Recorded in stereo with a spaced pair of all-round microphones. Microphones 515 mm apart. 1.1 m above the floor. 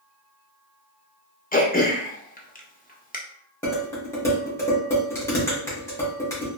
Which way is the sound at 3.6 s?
5° left (ahead or behind).